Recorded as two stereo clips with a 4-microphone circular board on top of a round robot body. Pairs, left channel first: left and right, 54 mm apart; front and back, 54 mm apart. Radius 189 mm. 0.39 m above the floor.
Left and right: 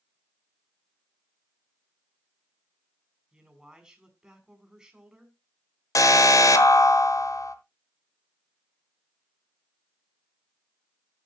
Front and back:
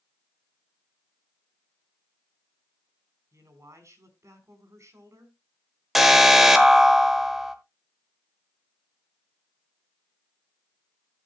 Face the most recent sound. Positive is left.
turn(degrees=90)